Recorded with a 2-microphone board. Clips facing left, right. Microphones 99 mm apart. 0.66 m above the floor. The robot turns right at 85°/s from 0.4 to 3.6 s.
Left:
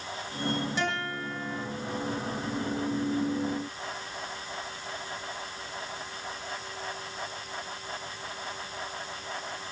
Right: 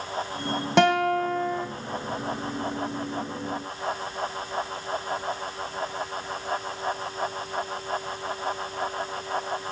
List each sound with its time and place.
0.8 s a guitar: 105° right, 2.5 m; by 1.7 s 30° right, 2.5 m